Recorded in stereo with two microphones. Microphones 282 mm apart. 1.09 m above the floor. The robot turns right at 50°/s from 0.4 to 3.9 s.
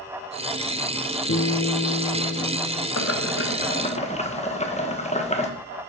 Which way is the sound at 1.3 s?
105° left.